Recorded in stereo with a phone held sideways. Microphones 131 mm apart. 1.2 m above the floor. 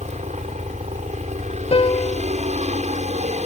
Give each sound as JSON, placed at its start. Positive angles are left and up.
{"t": 0.0, "sound": "a helicopter", "side_deg": -60}
{"t": 1.7, "sound": "a piano", "side_deg": 50}